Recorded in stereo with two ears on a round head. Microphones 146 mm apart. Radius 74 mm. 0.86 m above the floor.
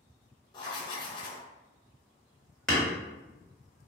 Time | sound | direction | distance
0.5 | writing | 25° left (ahead or behind) | 0.5 m
2.7 | hammering | centre (ahead or behind) | 1.3 m